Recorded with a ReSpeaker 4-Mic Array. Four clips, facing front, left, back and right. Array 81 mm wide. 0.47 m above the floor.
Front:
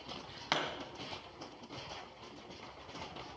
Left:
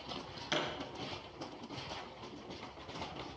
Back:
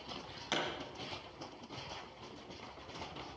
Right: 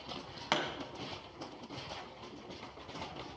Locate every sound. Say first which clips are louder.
0.5 s a pop: right 3 dB, front 2 dB; 60° right, 2.5 m